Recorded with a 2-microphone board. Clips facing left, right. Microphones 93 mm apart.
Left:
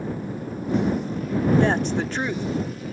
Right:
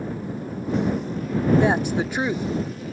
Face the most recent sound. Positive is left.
turn(degrees=-10)  # may be behind; listen again after turning